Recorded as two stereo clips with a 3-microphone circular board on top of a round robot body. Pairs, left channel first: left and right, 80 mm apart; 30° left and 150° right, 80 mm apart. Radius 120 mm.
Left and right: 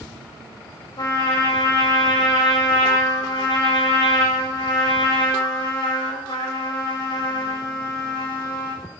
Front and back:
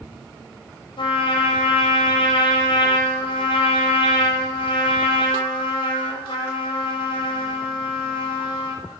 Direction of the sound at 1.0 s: 55° left.